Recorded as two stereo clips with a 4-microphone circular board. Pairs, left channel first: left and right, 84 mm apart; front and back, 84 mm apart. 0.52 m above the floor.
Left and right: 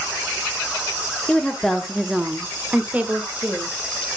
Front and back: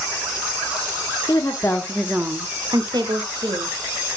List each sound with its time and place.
1.3 s a woman speaking: 10° left, 0.9 m; by 3.8 s 160° right, 1.9 m